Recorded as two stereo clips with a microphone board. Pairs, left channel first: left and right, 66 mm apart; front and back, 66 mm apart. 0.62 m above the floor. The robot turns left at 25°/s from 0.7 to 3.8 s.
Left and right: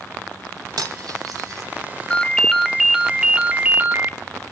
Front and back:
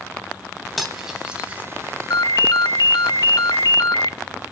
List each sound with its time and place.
0.8 s cutlery clinking: 90° right, 3 m; by 1.6 s 110° right, 3 m
2.1 s a ringtone: 15° left, 0.6 m; by 4.2 s 25° right, 0.6 m